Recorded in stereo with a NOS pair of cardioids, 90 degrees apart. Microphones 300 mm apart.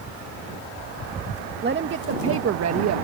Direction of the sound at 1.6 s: 35° right.